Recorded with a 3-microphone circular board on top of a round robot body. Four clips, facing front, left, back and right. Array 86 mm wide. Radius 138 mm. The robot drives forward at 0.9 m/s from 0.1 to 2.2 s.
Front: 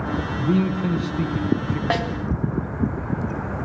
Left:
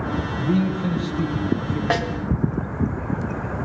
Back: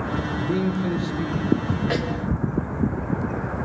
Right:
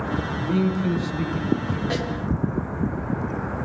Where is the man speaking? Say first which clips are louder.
Left 1 dB, front 3 dB; 15° left, 5.5 m; by 1.8 s 20° left, 4 m.